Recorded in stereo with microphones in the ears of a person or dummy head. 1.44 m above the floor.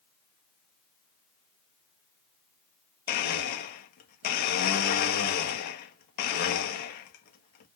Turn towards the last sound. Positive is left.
turn(degrees=55)  # may be behind; listen again after turning